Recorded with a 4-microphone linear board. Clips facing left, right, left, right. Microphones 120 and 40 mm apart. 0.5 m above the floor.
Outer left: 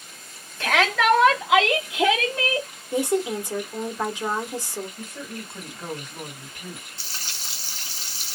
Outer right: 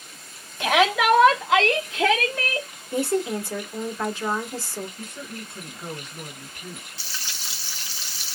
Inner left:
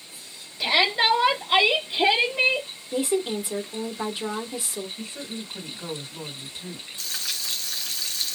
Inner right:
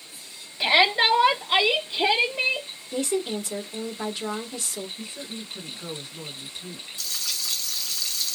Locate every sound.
0.6 s a shout: 15° right (ahead or behind), 1.2 m; by 2.7 s 25° left (ahead or behind), 1.5 m
2.9 s a woman speaking: 15° left (ahead or behind), 1.3 m
5.0 s a woman speaking: 50° left (ahead or behind), 2 m
7.0 s frying: 45° left (ahead or behind), 1.3 m